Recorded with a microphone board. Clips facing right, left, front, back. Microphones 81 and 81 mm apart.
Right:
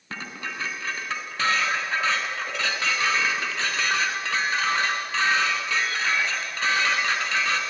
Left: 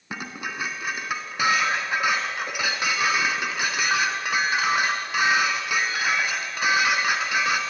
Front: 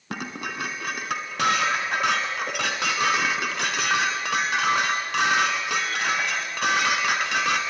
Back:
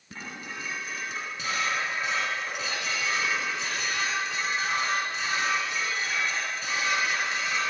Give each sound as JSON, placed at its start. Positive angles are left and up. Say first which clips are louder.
{"t": 0.1, "sound": "dishes clattering", "louder": "left 2 dB, front 7 dB", "azimuth_deg": 15, "distance_m": 3.0}